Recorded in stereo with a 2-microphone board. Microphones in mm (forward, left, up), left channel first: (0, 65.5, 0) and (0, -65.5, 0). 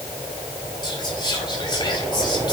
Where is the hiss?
I don't hear a hiss.